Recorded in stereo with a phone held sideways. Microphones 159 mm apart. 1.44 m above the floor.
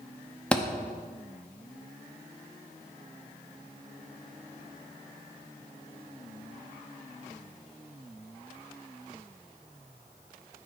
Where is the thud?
5° left (ahead or behind), 0.9 m.